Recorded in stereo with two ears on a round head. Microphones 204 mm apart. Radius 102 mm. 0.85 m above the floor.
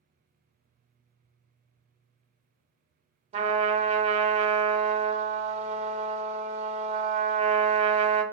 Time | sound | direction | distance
3.3 | a trumpet | 30° right (ahead or behind) | 0.6 m